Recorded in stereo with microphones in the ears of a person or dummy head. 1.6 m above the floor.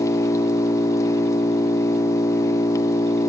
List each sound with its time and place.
0.0 s an engine running: 15° left (ahead or behind), 1.2 m